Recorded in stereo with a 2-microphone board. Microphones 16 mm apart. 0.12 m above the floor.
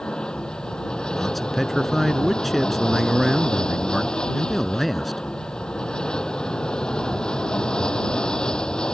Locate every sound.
0.0 s an aircraft: 70° left (ahead or behind)
1.1 s a man speaking: 5° left (ahead or behind)